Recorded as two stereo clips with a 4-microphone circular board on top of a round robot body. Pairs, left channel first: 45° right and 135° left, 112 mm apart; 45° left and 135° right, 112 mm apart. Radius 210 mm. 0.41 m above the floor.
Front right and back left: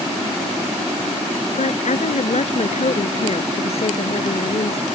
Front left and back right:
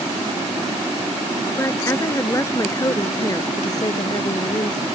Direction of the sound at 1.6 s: 25° right.